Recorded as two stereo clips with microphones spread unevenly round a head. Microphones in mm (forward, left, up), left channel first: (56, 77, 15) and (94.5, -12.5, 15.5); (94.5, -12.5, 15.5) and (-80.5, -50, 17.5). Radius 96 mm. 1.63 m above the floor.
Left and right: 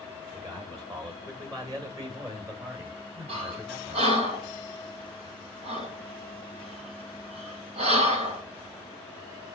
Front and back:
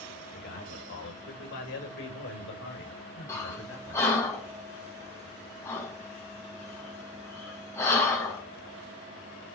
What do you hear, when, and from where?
0.3 s a man speaking: 20° right, 8.5 m; by 4.1 s 5° right, 7 m
3.3 s breathing: 65° right, 3.5 m